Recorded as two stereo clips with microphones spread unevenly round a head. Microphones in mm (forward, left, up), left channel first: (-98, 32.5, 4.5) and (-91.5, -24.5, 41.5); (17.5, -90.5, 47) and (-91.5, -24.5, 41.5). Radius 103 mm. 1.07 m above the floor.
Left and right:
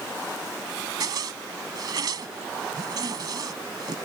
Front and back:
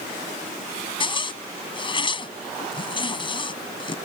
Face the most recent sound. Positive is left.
turn(degrees=-85)